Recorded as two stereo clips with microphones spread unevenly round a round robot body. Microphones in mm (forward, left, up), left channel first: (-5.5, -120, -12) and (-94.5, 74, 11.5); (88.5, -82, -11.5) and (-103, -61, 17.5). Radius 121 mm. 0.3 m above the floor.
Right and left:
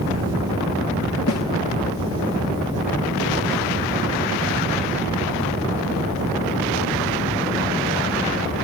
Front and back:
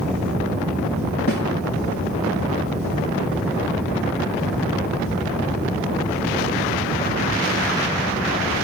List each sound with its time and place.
1.3 s a snare drum: 35° right, 6.5 m